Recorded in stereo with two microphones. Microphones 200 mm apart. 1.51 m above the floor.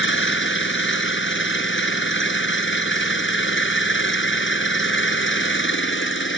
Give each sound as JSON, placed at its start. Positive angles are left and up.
{"t": 0.0, "sound": "an engine running", "side_deg": 75}